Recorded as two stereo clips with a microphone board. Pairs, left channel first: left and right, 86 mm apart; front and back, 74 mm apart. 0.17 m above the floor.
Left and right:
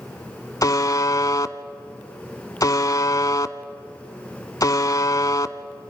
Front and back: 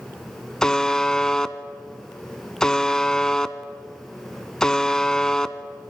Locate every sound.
0.6 s a buzzer: 80° left, 0.6 m